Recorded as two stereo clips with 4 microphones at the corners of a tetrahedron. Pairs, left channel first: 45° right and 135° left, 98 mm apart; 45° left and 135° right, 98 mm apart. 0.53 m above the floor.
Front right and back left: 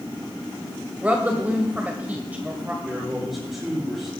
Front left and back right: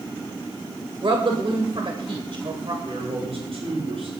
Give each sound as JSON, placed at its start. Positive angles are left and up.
{"t": 1.0, "sound": "a woman speaking", "azimuth_deg": -155, "distance_m": 2.0}
{"t": 2.9, "sound": "a man speaking", "azimuth_deg": -135, "distance_m": 9.0}